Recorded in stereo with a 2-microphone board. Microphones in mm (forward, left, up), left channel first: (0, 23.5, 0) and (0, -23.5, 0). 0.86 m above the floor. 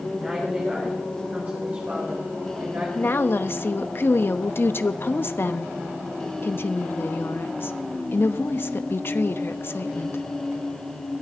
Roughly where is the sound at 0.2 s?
Centre.